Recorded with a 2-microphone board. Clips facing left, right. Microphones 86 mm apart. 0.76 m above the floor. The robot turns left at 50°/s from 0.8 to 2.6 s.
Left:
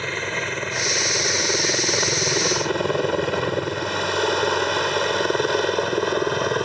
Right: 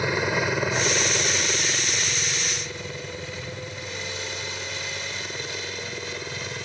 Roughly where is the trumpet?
I don't hear a trumpet.